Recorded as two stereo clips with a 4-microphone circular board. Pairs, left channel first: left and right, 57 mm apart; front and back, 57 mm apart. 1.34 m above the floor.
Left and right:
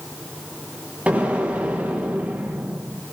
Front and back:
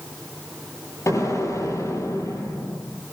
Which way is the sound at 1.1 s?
25° right.